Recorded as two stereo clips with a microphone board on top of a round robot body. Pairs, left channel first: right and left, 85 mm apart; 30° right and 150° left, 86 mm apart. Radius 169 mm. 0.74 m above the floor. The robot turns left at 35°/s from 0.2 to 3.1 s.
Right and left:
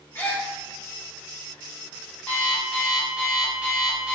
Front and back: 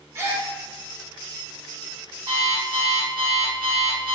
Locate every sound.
0.1 s a gasp: 150° right, 0.9 m; by 0.5 s 160° right, 0.9 m
2.3 s an alarm clock: 165° right, 0.6 m; by 4.2 s 170° left, 0.6 m